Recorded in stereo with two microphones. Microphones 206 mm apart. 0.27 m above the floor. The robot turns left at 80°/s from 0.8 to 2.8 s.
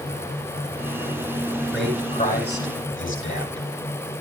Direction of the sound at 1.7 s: 5° right (ahead or behind).